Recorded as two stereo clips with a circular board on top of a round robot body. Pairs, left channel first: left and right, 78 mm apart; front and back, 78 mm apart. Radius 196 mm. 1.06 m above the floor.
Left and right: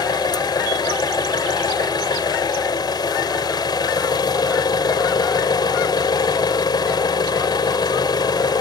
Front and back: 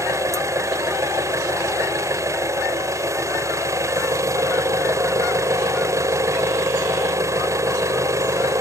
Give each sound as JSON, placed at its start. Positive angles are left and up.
{"t": 0.0, "sound": "an engine running", "azimuth_deg": 125}